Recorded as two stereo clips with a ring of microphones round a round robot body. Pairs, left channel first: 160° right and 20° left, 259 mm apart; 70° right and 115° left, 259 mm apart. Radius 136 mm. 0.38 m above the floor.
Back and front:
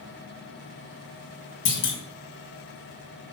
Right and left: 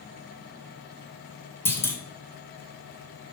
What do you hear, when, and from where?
1.6 s a clunk: 145° right, 1.9 m